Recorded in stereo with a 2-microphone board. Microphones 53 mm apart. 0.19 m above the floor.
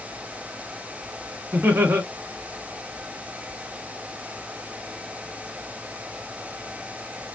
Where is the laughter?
50° right (ahead or behind), 2 m.